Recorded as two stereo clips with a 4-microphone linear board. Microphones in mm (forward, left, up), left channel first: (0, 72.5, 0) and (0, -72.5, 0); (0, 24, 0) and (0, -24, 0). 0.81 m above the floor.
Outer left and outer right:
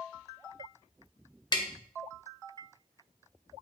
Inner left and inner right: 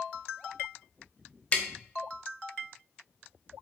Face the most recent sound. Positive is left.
turn(degrees=30)  # may be behind; listen again after turning